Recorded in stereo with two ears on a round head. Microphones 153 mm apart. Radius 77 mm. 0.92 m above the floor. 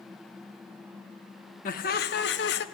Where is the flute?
No flute in this recording.